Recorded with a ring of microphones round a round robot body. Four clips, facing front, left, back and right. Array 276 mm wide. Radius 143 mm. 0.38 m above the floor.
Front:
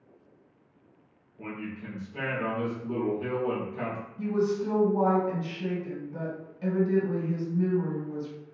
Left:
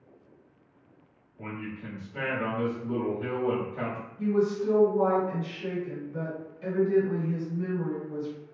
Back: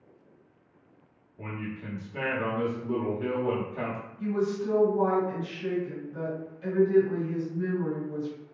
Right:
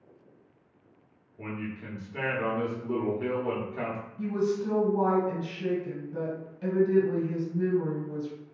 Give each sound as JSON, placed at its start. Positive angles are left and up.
{"t": 1.4, "sound": "a man speaking", "azimuth_deg": -120, "distance_m": 1.5}
{"t": 4.2, "sound": "a woman speaking", "azimuth_deg": -30, "distance_m": 2.0}